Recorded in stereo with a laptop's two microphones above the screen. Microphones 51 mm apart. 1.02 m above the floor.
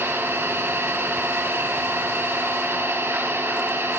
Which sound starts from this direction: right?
An engine running, at 0.0 s.